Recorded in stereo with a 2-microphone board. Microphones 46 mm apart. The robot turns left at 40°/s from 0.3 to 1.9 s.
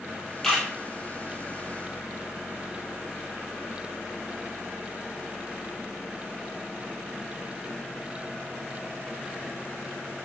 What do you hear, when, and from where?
0.4 s a camera shutter: 10° left (ahead or behind), 3 m; by 0.7 s centre (ahead or behind), 3 m